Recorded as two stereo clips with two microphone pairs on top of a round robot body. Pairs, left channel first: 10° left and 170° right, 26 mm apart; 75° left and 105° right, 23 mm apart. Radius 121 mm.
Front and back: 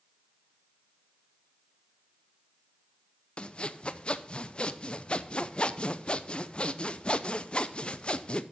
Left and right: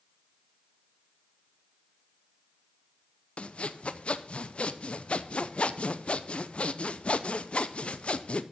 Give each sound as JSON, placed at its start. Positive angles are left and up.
{"t": 3.4, "sound": "sawing", "azimuth_deg": 50, "distance_m": 0.7}